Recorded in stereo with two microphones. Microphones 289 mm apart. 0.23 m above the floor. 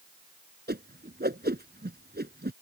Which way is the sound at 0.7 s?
35° right (ahead or behind).